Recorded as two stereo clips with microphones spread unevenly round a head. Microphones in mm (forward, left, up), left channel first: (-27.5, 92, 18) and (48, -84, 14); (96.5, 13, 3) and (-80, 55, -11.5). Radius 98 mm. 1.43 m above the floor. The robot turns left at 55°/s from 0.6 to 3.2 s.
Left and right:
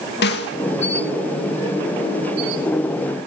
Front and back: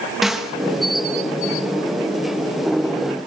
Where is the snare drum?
80° left, 2.0 m.